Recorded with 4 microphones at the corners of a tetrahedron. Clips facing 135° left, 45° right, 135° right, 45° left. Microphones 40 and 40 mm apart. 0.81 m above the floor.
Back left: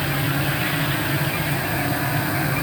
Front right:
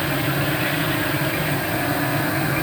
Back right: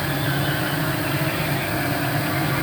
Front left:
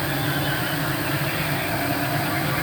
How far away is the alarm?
No alarm in this recording.